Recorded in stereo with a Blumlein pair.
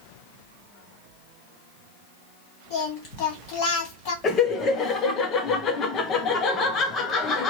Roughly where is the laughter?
Ahead left.